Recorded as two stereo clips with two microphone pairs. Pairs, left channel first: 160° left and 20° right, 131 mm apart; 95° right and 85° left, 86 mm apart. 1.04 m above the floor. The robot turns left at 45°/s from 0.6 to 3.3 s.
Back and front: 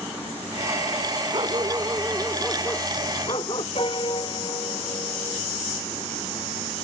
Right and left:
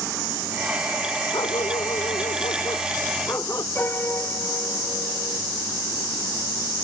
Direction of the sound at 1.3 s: 65° right.